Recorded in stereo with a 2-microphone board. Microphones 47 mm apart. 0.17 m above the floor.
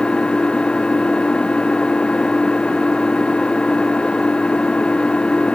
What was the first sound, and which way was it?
An engine running, 20° left (ahead or behind).